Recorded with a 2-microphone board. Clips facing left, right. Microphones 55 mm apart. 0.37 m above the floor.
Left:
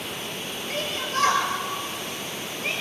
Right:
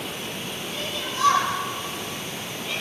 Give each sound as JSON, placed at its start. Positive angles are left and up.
{"t": 0.7, "sound": "a shout", "side_deg": 80, "distance_m": 9.0}